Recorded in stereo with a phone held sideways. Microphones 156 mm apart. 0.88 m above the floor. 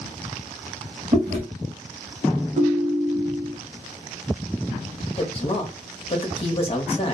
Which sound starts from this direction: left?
A woman speaking, at 5.2 s.